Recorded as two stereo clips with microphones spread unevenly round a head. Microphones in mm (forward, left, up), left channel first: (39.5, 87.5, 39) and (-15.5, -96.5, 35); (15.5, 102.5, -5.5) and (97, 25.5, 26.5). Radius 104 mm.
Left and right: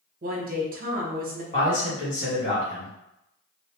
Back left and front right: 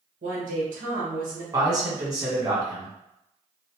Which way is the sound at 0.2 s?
65° right.